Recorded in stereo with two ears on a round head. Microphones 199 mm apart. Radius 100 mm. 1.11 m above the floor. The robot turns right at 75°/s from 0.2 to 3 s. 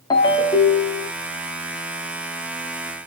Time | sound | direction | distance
0.1 | a ringtone | 20° left (ahead or behind) | 0.6 m